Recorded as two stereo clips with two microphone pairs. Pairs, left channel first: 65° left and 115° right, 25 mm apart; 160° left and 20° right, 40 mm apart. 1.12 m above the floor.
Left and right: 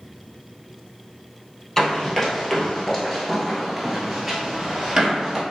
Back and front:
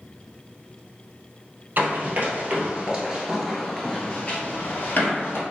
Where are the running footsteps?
5° right, 1.6 m; by 5.4 s 175° left, 1.7 m.